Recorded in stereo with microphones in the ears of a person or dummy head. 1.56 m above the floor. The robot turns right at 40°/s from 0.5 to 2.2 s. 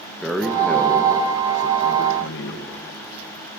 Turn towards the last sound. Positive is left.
turn(degrees=65)